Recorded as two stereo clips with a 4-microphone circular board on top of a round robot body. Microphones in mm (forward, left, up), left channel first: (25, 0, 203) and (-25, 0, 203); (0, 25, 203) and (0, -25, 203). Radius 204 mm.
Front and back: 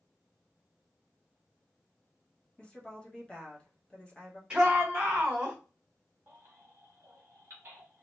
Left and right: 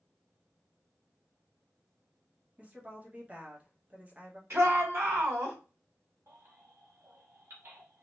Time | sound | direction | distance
2.6 | a woman speaking | 55° right | 1.4 m
4.5 | a shout | 110° right | 2.5 m
6.3 | a baby crying | 130° right | 1.1 m